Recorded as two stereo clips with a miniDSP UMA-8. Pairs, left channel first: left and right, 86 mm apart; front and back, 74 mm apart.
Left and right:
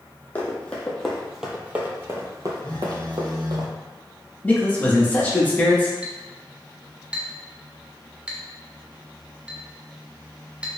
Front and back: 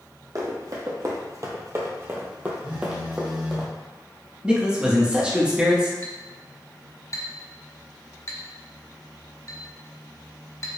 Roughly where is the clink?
Ahead.